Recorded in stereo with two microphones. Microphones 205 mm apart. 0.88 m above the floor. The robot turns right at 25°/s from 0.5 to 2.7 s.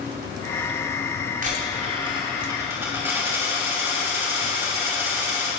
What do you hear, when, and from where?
1.4 s a dropped coin: 45° right, 2.5 m; by 5.5 s 15° right, 2.5 m